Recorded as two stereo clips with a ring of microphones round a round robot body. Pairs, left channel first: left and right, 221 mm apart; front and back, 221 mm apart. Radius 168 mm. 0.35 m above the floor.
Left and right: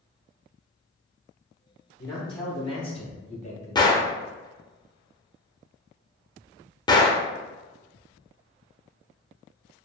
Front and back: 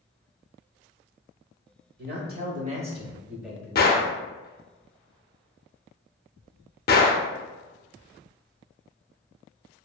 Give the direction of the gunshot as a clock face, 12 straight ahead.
11 o'clock.